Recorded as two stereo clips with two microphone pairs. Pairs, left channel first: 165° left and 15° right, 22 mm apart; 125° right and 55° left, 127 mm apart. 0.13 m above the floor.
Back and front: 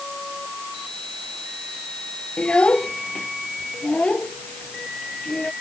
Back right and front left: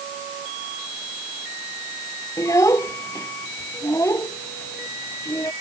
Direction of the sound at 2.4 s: 170° left.